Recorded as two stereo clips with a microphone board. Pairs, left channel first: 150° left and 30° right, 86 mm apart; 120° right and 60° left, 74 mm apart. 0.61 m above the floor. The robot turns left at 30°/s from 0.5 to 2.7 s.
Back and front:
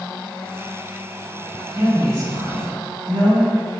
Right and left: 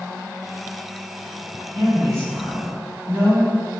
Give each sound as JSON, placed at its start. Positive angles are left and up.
{"t": 1.8, "sound": "a woman speaking", "azimuth_deg": 25, "distance_m": 1.4}